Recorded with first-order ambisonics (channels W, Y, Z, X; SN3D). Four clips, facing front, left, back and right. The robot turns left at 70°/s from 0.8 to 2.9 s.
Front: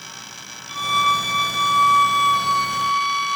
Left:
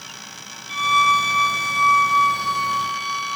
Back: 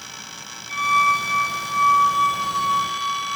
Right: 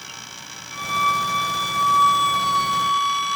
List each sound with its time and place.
0.7 s a violin: 40° left, 9.5 m; by 3.4 s 105° right, 9.5 m